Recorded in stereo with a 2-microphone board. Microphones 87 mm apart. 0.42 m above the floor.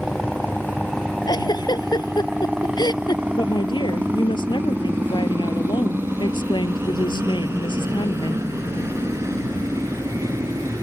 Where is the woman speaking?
65° left (ahead or behind).